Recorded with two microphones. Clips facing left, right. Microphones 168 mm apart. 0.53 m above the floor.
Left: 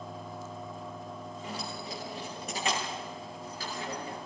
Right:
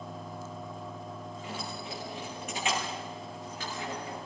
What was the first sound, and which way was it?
Keys jangling, 40° left (ahead or behind).